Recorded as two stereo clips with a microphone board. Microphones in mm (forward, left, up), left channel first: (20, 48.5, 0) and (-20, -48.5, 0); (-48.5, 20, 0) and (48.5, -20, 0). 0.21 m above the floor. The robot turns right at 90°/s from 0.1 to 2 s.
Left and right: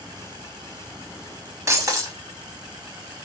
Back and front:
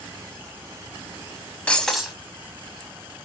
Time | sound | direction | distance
1.7 | breaking glass | 140° right | 0.6 m